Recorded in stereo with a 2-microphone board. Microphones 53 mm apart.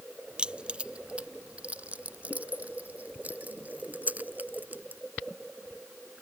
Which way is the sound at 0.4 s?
20° right (ahead or behind).